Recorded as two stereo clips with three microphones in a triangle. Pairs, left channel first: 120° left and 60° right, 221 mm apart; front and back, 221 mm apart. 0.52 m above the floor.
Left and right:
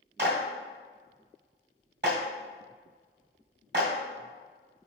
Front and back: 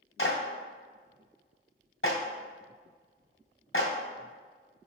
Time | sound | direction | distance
0.2 | a clap | 25° right | 1.8 m